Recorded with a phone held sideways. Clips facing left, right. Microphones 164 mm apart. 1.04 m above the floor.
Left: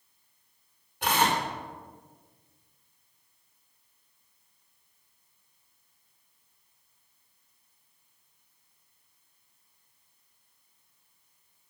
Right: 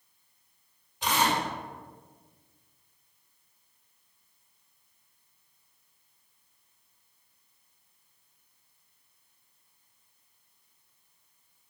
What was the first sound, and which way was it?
Tearing paper, 55° left (ahead or behind).